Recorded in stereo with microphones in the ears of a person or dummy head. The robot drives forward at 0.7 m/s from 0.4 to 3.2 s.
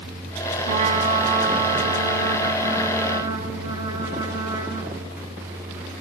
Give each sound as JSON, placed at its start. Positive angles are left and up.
{"t": 0.7, "sound": "a trumpet", "side_deg": -35, "distance_m": 2.0}